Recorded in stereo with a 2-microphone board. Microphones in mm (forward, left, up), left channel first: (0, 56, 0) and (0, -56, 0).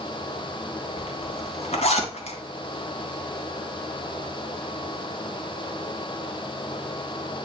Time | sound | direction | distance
1.0 | a zipper | 75° left (ahead or behind) | 2.5 m